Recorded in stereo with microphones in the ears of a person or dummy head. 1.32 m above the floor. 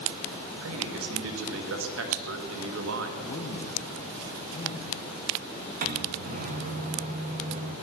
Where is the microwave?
45° right (ahead or behind), 1.7 m.